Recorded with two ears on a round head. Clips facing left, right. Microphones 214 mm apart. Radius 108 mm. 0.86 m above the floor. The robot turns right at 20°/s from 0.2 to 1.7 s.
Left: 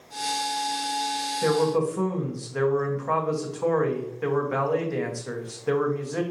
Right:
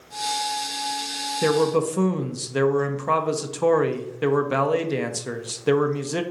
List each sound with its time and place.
1.4 s a man speaking: 40° right (ahead or behind), 0.6 m; by 6.2 s 45° right (ahead or behind), 0.6 m